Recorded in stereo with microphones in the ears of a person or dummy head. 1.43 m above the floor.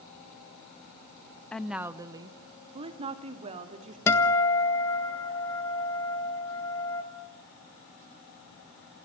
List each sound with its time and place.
1.5 s a woman speaking: 5° left (ahead or behind), 0.7 m; by 4.0 s 40° right (ahead or behind), 2.5 m
4.1 s a guitar: 15° left (ahead or behind), 1.5 m